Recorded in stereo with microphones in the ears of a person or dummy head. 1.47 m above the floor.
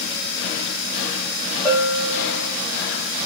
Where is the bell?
5° right (ahead or behind), 1.6 m.